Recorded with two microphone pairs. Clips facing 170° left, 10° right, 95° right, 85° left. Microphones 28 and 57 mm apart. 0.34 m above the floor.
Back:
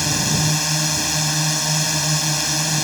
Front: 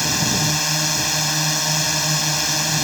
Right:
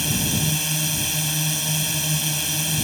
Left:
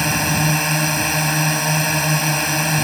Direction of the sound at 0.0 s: 75° left.